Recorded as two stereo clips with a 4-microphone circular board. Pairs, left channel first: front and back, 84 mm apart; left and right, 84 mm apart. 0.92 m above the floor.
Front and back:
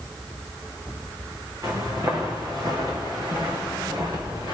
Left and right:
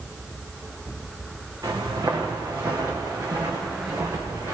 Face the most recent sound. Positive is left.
turn(degrees=-145)